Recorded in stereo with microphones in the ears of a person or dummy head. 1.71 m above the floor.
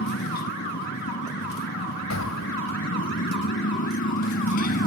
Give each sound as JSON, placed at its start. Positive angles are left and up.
{"t": 0.0, "sound": "a motorcycle", "side_deg": 55}
{"t": 2.1, "sound": "an explosion", "side_deg": 85}